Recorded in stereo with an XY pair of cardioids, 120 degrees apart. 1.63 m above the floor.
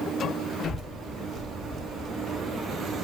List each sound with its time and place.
0.6 s a child speaking: 25° left, 2 m